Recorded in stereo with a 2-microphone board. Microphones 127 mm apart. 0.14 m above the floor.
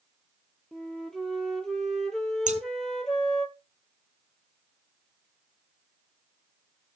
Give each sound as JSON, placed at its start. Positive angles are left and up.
{"t": 0.7, "sound": "a flute", "side_deg": 5, "distance_m": 1.0}
{"t": 2.5, "sound": "scissors", "side_deg": -80, "distance_m": 0.9}